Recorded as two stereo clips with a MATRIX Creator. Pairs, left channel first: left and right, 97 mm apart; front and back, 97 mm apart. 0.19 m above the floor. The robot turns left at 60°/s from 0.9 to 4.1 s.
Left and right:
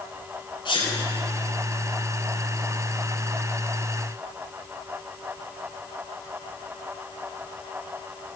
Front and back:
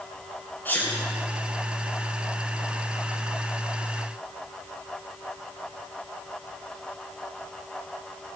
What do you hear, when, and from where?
0.7 s a sneeze: 70° left, 2 m; by 0.9 s 65° left, 2 m